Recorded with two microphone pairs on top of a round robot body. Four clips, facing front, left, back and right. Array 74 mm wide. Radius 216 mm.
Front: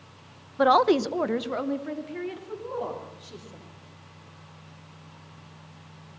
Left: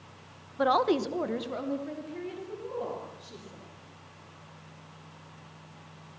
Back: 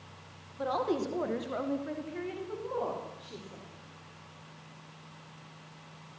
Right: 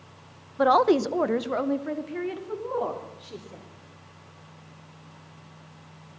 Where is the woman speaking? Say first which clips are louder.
Right 5 dB, front 11 dB; 30° right, 1.2 m; by 3.6 s 95° right, 5 m.